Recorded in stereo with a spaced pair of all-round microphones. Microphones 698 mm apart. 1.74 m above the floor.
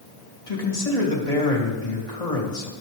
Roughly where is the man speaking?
Left.